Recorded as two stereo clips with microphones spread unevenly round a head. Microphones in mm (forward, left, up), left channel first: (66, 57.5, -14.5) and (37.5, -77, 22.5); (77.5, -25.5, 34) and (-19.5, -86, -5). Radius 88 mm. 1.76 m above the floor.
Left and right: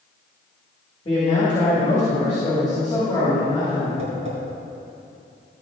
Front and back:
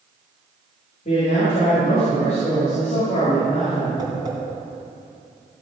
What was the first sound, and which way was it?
A man speaking, 20° left.